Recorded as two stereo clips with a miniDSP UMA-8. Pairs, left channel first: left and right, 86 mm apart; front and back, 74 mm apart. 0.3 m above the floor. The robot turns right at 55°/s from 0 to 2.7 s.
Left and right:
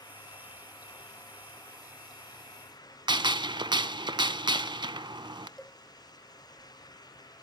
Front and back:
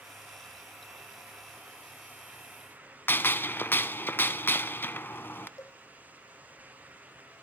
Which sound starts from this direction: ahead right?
A gunshot, at 3.1 s.